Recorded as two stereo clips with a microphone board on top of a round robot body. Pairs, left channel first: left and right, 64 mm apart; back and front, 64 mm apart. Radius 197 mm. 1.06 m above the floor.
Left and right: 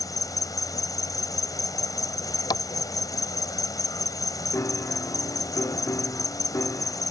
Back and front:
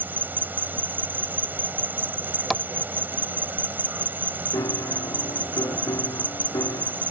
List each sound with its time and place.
0.0 s an insect: 60° left
2.5 s tapping: 90° left
4.5 s a piano: 140° left